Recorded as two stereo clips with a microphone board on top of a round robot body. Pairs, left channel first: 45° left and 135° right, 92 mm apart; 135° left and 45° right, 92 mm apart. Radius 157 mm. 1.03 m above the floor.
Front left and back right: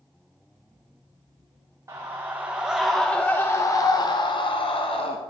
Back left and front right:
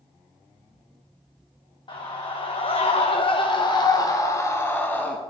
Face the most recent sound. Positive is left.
turn(degrees=60)